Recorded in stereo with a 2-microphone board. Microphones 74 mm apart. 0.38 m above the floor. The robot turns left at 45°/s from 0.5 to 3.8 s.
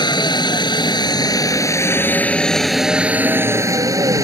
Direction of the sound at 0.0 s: 75° left (ahead or behind).